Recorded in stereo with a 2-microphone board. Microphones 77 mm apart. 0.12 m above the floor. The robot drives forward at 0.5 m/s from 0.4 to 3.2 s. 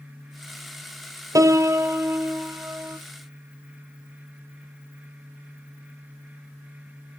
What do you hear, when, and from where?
1.4 s a piano: 45° right (ahead or behind), 0.6 m; by 3.0 s 20° right (ahead or behind), 1.3 m